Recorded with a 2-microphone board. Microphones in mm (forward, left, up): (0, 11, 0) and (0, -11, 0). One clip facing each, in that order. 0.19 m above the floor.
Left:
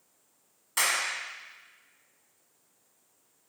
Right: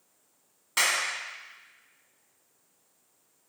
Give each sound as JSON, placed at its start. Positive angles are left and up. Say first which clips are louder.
{"t": 0.8, "sound": "a clap", "louder": "right 2 dB", "side_deg": -20, "distance_m": 0.9}